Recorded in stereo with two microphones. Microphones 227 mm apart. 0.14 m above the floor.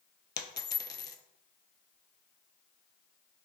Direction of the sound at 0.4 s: 50° left (ahead or behind).